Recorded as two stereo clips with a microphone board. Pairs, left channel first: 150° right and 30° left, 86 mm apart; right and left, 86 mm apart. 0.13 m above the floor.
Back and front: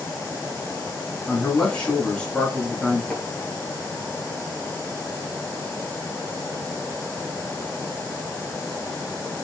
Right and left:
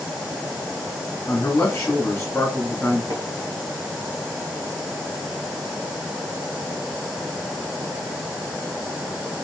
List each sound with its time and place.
1.3 s a man speaking: 85° right, 1.4 m
3.1 s tapping: 130° left, 0.9 m